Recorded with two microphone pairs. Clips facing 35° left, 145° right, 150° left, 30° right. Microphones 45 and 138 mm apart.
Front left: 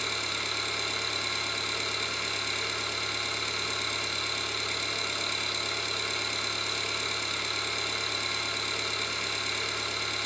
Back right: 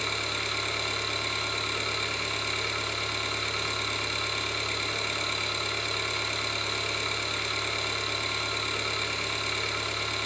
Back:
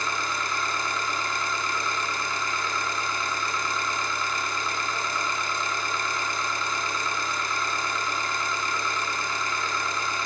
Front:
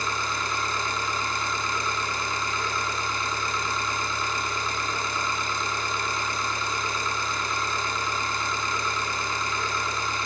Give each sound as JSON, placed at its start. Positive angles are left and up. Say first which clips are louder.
{"t": 0.0, "sound": "an engine running", "louder": "back right 2 dB, even", "azimuth_deg": -80, "distance_m": 1.4}